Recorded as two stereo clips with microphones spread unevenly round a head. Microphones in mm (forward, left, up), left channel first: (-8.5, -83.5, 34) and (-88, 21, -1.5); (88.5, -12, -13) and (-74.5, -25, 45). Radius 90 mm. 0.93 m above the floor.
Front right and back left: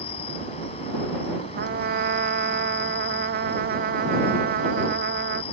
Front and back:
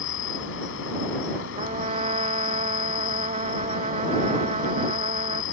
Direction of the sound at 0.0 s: 5° left.